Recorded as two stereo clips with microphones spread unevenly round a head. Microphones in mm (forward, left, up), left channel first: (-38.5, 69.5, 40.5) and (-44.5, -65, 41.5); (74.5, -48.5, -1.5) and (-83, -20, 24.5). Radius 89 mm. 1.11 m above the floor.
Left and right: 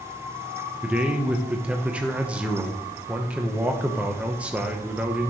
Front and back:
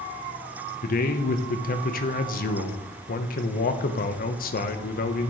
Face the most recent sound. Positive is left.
turn(degrees=-10)